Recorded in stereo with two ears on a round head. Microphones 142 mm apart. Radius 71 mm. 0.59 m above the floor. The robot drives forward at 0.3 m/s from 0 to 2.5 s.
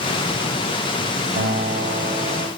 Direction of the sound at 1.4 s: 70° right (ahead or behind).